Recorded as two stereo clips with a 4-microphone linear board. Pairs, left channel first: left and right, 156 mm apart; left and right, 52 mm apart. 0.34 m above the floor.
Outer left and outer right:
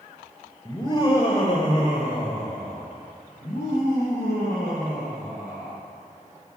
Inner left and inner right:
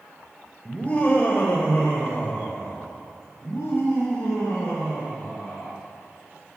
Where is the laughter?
25° left (ahead or behind), 0.9 m; by 5.8 s 75° left (ahead or behind), 3.5 m.